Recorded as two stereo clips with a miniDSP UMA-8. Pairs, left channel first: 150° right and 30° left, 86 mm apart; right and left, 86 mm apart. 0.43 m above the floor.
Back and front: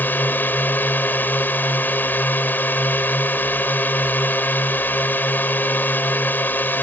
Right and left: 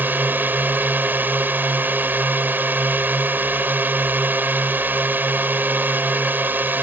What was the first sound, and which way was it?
A drone, 150° left.